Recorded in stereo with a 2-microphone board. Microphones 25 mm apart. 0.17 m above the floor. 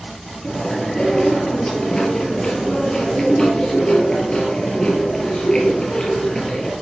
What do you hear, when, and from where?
0.4 s chewing: 25° left (ahead or behind), 4.5 m